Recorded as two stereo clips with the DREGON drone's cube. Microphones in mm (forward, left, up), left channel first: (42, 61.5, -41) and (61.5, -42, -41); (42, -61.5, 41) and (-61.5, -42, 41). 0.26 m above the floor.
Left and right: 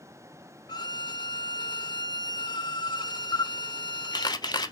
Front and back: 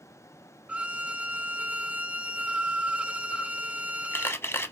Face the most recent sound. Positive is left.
turn(degrees=55)